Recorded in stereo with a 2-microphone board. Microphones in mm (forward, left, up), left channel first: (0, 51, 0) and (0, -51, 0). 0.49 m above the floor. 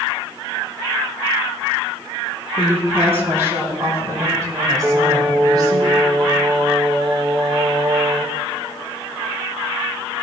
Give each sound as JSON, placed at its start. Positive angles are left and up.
{"t": 2.6, "sound": "a woman speaking", "side_deg": -20, "distance_m": 3.0}
{"t": 4.8, "sound": "singing", "side_deg": -50, "distance_m": 1.0}